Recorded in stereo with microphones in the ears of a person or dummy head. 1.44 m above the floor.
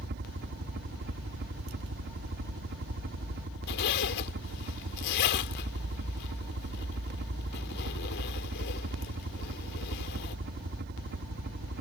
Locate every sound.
0.0 s a helicopter: 50° right (ahead or behind)
3.7 s a zipper: 60° left (ahead or behind)